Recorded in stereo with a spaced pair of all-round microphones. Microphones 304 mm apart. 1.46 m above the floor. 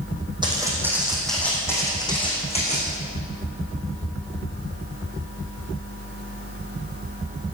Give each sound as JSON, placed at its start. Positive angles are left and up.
{"t": 0.4, "sound": "footsteps", "side_deg": -15, "distance_m": 4.5}